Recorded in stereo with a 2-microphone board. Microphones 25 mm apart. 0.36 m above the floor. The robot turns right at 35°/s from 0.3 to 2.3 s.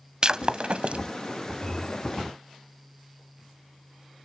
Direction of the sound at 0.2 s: 35° right (ahead or behind).